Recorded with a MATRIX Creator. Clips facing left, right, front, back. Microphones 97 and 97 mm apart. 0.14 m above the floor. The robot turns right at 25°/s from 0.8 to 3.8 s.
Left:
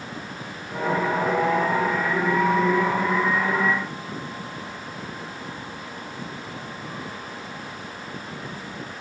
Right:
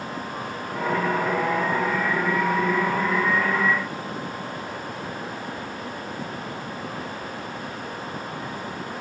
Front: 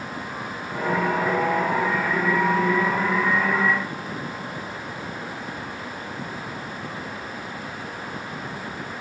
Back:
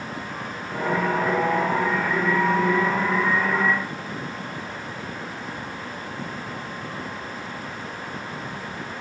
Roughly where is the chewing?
I don't hear chewing.